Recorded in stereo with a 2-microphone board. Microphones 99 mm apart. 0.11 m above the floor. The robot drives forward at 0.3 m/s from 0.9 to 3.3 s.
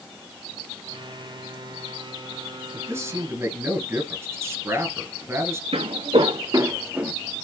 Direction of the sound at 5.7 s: 80° right.